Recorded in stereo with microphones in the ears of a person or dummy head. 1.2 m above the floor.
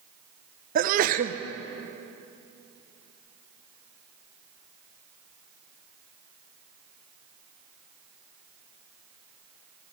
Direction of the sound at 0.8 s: 50° right (ahead or behind).